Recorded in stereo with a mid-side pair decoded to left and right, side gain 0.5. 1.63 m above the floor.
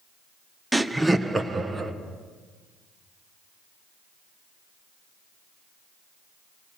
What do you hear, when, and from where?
0.7 s laughter: 5° right, 0.7 m; by 1.9 s 30° right, 1.8 m